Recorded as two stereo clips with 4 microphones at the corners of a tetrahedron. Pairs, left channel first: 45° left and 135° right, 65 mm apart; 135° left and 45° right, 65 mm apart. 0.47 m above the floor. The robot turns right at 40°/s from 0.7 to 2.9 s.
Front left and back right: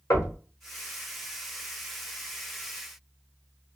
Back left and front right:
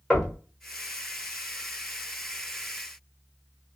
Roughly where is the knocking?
Ahead left.